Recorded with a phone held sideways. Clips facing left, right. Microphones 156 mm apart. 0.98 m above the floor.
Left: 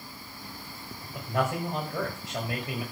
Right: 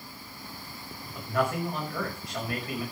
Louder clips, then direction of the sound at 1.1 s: Right 1 dB; 25° left (ahead or behind).